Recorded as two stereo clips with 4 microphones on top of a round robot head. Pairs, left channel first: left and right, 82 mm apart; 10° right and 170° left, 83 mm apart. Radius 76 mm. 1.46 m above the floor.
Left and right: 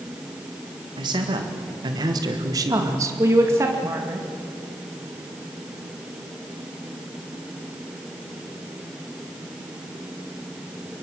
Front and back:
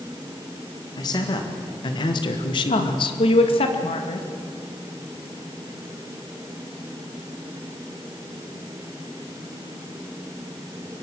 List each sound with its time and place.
1.0 s a man speaking: 55° right, 2.5 m; by 3.2 s 30° right, 1.3 m
2.7 s a woman speaking: 25° right, 2 m